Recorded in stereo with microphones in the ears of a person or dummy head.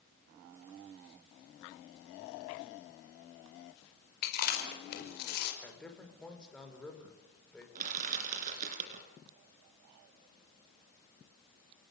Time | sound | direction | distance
4.2 | chewing | 55° left (ahead or behind) | 5 m
5.6 | a man speaking | 5° left (ahead or behind) | 4.5 m
7.8 | crushing | 45° right (ahead or behind) | 3.5 m